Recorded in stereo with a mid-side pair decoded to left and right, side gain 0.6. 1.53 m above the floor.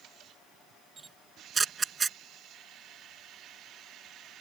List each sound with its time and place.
1.0 s a camera shutter: 25° right